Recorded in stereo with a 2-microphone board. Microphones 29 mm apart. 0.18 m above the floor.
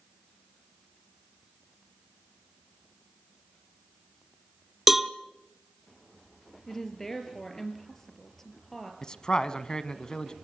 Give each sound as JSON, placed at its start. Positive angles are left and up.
{"t": 4.9, "sound": "a cowbell", "side_deg": -10, "distance_m": 0.7}
{"t": 6.7, "sound": "a woman speaking", "side_deg": 15, "distance_m": 3.5}
{"t": 9.0, "sound": "a man speaking", "side_deg": 30, "distance_m": 1.2}